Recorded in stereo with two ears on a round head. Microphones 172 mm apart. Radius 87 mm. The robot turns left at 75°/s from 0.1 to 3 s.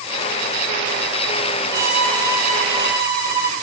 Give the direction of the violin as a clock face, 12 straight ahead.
5 o'clock.